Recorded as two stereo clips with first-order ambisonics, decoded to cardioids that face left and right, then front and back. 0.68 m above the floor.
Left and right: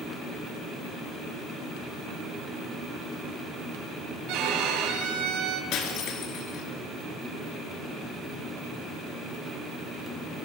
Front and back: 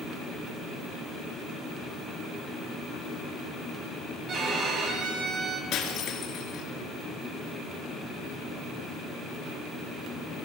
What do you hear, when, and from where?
4.3 s a violin: 120° right, 2.0 m
5.7 s breaking glass: 50° left, 2.5 m